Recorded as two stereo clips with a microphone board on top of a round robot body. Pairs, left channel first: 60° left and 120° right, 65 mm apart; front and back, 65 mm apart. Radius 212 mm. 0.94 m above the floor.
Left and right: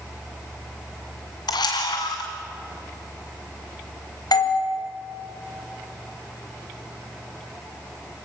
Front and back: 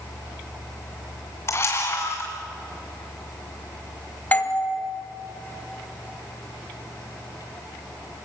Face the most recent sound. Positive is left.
turn(degrees=65)